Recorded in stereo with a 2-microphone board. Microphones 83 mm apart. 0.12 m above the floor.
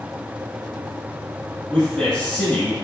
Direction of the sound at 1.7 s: 10° left (ahead or behind).